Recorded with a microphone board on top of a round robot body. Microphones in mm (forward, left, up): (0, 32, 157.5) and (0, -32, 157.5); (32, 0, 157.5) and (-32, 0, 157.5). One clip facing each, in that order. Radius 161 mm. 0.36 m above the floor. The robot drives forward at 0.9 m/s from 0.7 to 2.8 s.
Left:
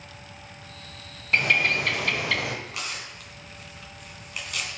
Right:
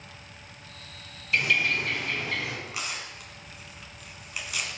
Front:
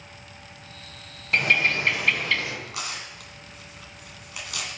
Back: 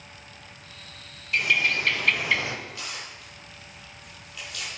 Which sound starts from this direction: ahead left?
A bird, at 1.3 s.